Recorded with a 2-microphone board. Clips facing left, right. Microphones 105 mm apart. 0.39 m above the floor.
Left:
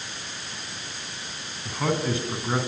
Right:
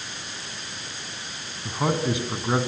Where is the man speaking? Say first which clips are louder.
Right 1 dB; 15° right (ahead or behind), 4 m.